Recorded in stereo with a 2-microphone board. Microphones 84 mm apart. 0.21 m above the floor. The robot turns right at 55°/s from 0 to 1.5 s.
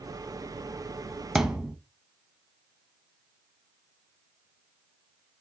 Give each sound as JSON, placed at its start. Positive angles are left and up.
{"t": 1.4, "sound": "a thud", "side_deg": -5, "distance_m": 0.6}